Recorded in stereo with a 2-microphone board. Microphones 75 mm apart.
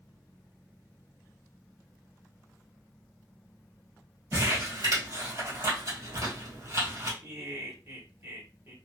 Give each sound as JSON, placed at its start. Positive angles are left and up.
{"t": 4.3, "sound": "crumpling", "side_deg": -50, "distance_m": 2.0}
{"t": 7.2, "sound": "laughter", "side_deg": -40, "distance_m": 2.0}